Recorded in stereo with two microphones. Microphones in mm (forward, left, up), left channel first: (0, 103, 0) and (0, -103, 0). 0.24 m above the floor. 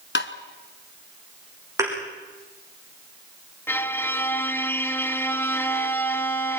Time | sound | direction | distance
0.1 | tapping | 70° left (ahead or behind) | 1.2 m
1.8 | a thud | 15° right (ahead or behind) | 7.5 m
3.7 | a violin | 10° left (ahead or behind) | 1.2 m